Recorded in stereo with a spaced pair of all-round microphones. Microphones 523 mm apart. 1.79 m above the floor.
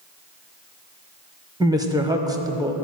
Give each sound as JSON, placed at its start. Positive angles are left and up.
{"t": 1.6, "sound": "a woman speaking", "side_deg": -5, "distance_m": 0.8}